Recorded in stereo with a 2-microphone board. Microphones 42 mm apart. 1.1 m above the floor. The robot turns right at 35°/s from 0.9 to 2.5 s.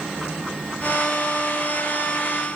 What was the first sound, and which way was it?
Only background noise.